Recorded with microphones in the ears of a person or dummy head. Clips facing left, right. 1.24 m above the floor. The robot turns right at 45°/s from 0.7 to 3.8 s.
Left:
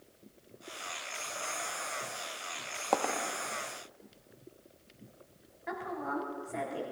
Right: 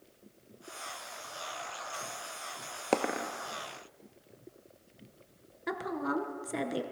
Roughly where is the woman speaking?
Right.